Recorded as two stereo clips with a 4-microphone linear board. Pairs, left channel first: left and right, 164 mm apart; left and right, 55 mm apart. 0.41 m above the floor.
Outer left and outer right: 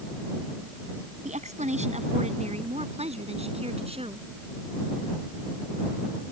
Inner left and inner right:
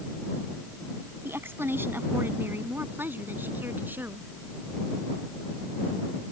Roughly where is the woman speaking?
Right.